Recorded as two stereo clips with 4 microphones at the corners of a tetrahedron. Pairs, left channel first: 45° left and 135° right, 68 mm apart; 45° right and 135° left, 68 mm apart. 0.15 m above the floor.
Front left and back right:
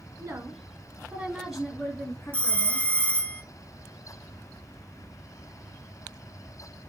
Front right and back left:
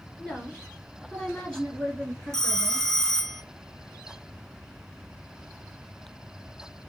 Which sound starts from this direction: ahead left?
A phone ringing, at 2.3 s.